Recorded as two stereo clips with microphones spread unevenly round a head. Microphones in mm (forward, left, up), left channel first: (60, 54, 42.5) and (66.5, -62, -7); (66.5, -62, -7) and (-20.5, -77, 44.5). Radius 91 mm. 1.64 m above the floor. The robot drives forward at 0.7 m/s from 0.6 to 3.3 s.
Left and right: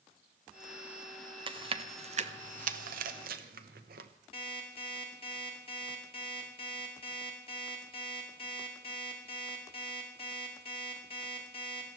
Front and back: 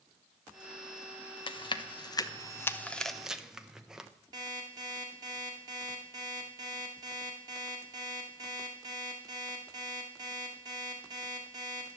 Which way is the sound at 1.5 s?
35° right.